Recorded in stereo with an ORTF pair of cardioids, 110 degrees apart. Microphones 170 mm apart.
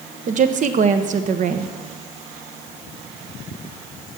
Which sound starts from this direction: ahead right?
A woman speaking, at 0.3 s.